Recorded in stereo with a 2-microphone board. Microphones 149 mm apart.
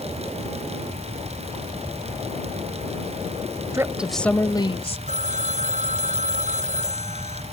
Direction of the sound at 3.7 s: 20° right (ahead or behind).